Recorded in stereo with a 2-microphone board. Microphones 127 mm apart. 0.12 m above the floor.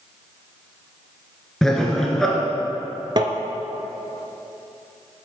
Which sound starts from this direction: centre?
Laughter, at 1.6 s.